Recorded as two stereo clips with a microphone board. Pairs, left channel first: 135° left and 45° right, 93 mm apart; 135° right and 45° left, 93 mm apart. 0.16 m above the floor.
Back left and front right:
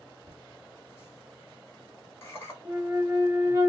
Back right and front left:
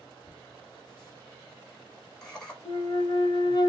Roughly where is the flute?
Right.